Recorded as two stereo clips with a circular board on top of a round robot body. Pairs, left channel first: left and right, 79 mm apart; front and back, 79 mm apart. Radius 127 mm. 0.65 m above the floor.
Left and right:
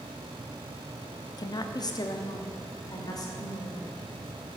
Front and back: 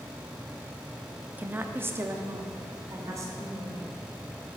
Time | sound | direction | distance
1.4 | a woman speaking | 110° left | 1.0 m